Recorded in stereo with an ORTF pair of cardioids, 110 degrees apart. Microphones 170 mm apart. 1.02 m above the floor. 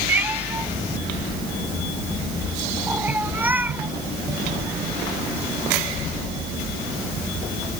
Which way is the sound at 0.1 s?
10° right.